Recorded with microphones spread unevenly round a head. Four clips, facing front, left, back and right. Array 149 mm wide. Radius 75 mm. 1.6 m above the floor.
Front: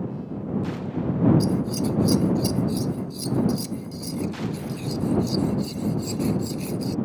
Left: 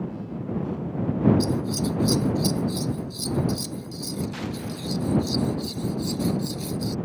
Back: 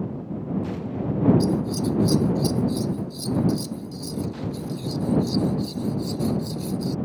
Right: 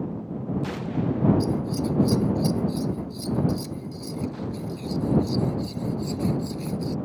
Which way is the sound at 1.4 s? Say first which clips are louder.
Even, back 1 dB; 45° left.